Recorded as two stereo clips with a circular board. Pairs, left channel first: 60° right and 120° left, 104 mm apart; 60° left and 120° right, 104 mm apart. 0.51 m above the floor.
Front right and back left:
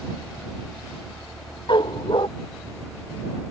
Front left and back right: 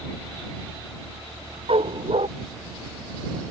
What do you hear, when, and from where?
1.7 s a dog barking: 100° right